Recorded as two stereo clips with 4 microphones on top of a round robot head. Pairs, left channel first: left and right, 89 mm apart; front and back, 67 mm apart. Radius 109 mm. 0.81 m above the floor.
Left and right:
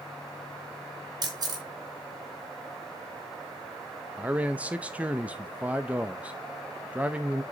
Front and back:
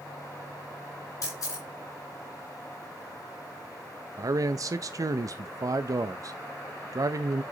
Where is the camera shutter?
45° right, 2.5 m.